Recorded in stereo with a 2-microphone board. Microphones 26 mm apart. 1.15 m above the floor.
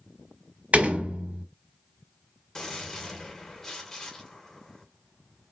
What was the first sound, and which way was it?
A door slam, 75° right (ahead or behind).